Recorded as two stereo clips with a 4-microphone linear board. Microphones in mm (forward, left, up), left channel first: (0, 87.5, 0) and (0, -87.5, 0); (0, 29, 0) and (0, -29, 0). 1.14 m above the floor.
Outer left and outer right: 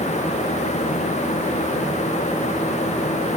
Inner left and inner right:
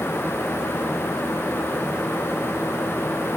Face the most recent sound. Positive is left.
No sound to turn to.